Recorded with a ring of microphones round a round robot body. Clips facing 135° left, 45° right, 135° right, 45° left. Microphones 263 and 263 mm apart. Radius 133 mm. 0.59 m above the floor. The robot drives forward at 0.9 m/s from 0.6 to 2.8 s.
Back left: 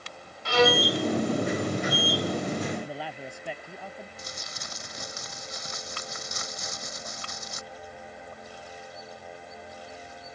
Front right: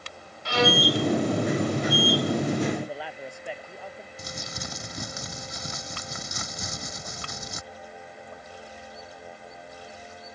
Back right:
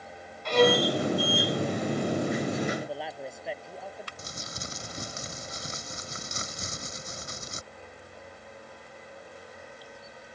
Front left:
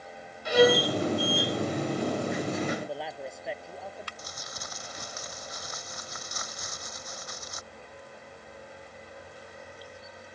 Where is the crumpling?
70° right.